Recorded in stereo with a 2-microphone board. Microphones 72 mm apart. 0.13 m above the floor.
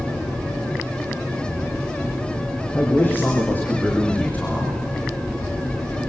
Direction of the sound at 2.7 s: 30° left (ahead or behind).